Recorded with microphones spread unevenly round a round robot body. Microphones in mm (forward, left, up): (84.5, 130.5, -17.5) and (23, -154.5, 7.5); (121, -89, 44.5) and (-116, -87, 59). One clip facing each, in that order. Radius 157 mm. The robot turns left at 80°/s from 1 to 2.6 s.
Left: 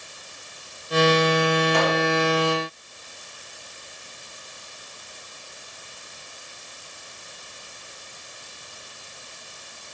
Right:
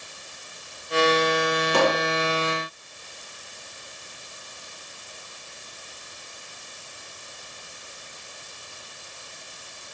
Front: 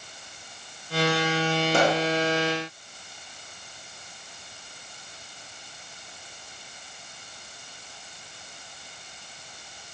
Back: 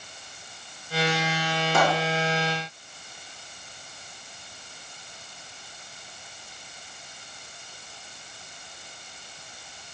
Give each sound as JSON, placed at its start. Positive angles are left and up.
{"t": 1.7, "sound": "a pop", "azimuth_deg": -55, "distance_m": 1.7}